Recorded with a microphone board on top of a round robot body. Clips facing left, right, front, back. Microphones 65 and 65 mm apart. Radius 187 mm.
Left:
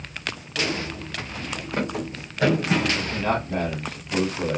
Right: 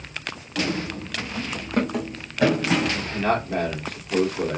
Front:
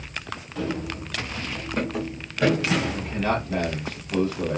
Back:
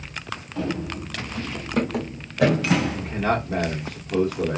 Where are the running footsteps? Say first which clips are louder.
Right 2 dB, back 1 dB; 115° right, 1.0 m; by 3.1 s 160° right, 1.7 m.